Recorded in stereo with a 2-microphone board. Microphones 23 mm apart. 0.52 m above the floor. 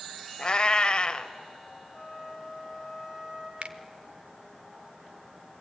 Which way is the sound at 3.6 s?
60° right (ahead or behind).